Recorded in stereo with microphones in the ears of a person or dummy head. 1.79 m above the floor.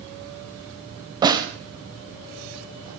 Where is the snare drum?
25° right (ahead or behind), 1.4 m.